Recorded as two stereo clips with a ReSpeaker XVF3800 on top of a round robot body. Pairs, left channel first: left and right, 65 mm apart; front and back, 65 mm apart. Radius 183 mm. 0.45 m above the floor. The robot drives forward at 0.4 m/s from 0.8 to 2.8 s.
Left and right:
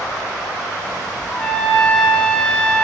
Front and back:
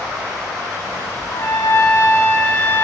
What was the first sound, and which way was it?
A trumpet, 15° left.